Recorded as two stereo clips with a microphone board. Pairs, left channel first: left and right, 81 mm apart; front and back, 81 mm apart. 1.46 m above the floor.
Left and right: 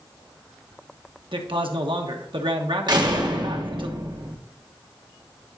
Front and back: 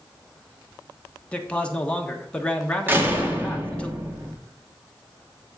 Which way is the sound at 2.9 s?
120° right.